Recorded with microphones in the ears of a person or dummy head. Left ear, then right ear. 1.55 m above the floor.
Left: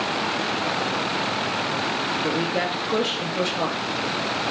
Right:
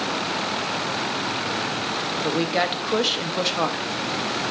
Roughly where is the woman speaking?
Right.